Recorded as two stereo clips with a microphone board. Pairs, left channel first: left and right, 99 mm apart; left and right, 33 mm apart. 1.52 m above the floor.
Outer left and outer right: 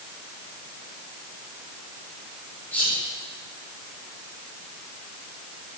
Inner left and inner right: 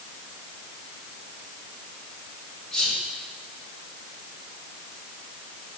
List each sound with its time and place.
2.7 s whispering: 20° left (ahead or behind), 2.5 m